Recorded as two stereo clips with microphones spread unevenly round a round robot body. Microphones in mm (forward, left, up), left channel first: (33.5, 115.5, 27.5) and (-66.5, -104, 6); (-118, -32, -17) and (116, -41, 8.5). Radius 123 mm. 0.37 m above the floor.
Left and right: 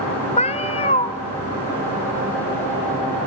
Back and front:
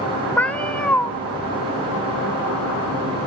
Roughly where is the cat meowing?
Left.